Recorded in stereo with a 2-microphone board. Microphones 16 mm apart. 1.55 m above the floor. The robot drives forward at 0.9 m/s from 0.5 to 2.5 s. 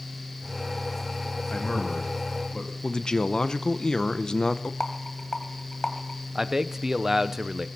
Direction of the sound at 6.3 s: 35° right (ahead or behind).